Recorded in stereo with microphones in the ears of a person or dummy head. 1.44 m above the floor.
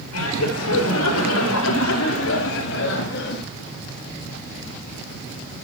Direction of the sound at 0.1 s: 80° left.